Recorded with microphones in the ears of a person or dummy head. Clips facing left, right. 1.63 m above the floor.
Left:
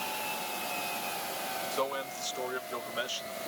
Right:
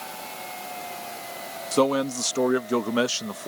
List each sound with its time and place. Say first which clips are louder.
1.7 s a man speaking: right 15 dB; 65° right (ahead or behind); by 3.5 s 70° right (ahead or behind)